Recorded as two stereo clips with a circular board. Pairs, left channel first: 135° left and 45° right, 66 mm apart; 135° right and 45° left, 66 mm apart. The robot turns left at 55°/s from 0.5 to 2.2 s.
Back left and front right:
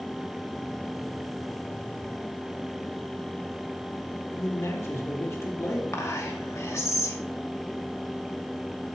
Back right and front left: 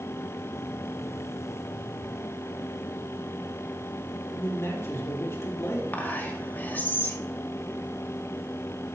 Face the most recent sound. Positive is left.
turn(degrees=165)